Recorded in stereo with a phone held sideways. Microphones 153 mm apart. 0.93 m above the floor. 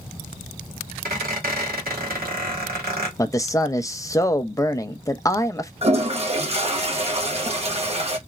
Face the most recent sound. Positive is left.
turn(degrees=-40)  # may be behind; listen again after turning